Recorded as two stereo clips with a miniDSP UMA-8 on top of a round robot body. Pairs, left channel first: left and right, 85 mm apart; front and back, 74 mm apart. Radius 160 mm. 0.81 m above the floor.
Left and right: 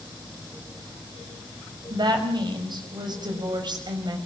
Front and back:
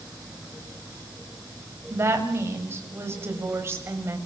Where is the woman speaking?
125° right, 6 m.